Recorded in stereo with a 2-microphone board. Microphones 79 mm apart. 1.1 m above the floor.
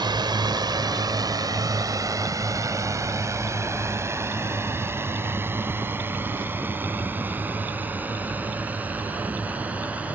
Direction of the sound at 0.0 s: 70° right (ahead or behind).